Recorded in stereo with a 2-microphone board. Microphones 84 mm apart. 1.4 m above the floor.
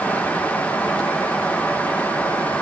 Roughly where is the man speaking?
I don't hear a man speaking.